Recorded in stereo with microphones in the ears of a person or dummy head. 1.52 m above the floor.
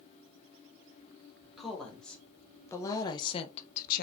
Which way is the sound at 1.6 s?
Centre (ahead or behind).